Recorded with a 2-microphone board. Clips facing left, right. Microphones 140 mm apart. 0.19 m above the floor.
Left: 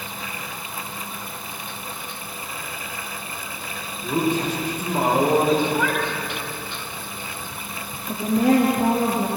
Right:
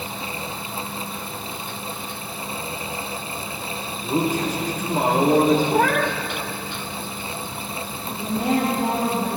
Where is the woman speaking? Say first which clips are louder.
Left 5 dB; 70° left (ahead or behind), 4 m.